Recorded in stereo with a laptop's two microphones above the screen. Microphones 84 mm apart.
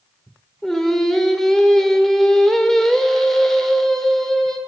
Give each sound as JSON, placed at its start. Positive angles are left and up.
{"t": 0.6, "sound": "singing", "side_deg": 5, "distance_m": 1.5}